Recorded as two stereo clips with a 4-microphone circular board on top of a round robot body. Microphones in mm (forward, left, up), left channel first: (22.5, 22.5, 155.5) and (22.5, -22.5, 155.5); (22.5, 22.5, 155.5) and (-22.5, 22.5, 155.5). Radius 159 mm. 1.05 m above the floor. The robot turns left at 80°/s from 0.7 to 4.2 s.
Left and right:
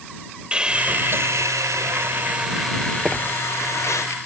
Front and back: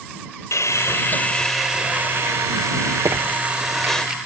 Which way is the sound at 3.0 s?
170° right.